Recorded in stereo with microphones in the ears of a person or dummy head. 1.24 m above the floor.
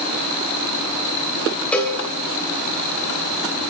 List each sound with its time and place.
1.7 s a cowbell: 5° left (ahead or behind), 3 m